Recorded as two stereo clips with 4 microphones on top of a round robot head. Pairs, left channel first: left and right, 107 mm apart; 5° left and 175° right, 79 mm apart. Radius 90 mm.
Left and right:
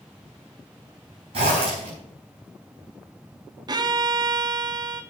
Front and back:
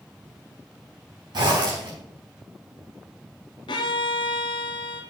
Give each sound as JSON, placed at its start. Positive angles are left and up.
{"t": 1.3, "sound": "a zipper", "azimuth_deg": -130, "distance_m": 5.0}
{"t": 3.7, "sound": "a violin", "azimuth_deg": -40, "distance_m": 1.0}